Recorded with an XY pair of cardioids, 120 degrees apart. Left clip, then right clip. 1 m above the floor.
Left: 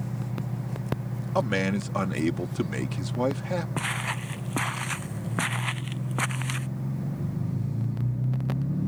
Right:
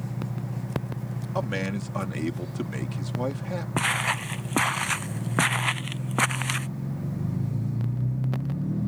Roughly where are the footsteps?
Ahead right.